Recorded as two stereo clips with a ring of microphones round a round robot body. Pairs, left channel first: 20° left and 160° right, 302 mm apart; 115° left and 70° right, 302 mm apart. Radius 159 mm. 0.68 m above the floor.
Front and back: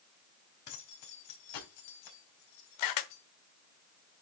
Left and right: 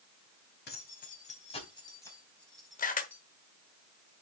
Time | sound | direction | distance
0.7 | keys jangling | 55° left | 3.5 m
2.8 | a camera shutter | 45° left | 1.2 m